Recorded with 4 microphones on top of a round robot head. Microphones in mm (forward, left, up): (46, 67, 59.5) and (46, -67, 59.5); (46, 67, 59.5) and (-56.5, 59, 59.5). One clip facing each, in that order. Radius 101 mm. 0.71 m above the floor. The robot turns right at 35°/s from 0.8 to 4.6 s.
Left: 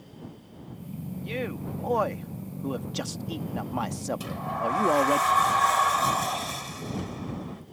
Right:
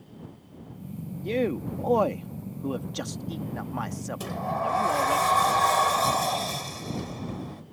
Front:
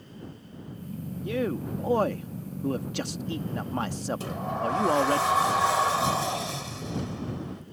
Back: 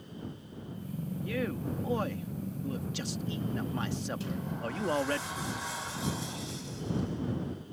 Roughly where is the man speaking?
Ahead right.